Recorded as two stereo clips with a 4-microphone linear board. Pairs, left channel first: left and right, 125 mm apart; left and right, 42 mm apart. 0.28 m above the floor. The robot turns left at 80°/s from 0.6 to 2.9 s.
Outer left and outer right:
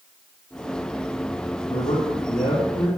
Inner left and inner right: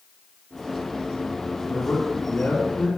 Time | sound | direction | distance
1.7 | a man speaking | 135° left | 3 m